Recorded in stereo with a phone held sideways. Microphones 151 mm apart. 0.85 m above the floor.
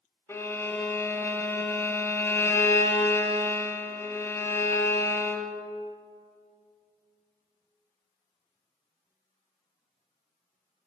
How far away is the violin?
About 0.6 m.